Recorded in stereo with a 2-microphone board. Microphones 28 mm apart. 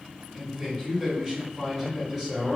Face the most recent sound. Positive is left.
turn(degrees=-10)  # may be behind; listen again after turning